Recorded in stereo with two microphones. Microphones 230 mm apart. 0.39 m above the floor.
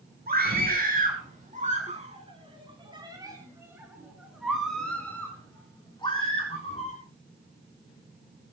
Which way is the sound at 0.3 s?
40° right (ahead or behind).